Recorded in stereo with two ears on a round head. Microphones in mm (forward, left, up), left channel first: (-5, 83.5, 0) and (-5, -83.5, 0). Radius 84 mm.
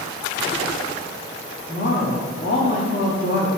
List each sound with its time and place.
1.7 s a woman speaking: 55° left (ahead or behind), 1.9 m